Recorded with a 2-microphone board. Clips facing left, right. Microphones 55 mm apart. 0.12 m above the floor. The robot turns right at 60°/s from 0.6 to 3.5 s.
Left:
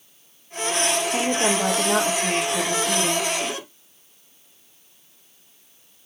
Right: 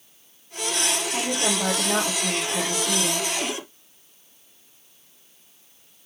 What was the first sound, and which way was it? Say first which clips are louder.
A woman speaking: left 4 dB; 95° left.